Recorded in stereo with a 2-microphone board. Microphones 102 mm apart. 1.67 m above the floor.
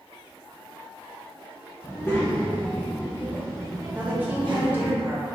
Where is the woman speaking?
20° right (ahead or behind), 1.1 m.